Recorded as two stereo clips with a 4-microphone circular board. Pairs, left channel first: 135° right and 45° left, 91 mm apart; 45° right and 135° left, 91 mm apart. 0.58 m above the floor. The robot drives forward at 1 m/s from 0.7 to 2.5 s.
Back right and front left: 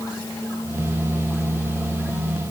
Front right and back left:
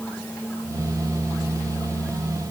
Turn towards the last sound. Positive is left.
No sound to turn to.